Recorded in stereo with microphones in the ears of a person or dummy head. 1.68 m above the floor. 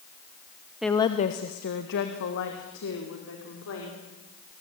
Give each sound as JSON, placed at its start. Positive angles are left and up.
{"t": 0.8, "sound": "a woman speaking", "side_deg": -5, "distance_m": 0.8}